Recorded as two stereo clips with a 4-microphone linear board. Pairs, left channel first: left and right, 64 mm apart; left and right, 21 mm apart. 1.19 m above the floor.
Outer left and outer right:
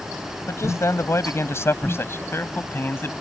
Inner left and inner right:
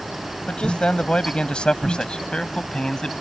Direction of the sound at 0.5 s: 45° left (ahead or behind).